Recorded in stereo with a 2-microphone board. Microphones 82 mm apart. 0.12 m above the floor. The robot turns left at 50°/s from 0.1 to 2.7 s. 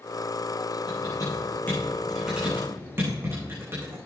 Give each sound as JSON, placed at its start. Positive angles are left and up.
{"t": 0.9, "sound": "typing on a keyboard", "side_deg": 65, "distance_m": 9.5}